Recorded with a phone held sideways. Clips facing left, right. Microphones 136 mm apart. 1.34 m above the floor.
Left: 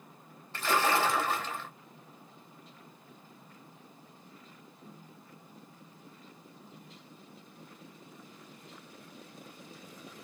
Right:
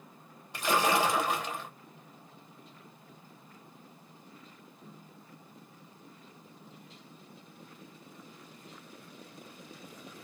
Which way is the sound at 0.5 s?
15° right (ahead or behind).